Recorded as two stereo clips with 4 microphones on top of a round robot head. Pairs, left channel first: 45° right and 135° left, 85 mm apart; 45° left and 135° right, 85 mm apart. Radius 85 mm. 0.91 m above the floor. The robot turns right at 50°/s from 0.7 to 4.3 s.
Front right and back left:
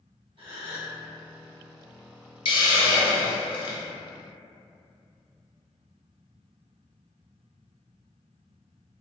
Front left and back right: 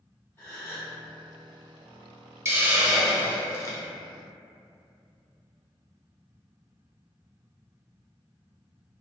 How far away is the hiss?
About 0.5 m.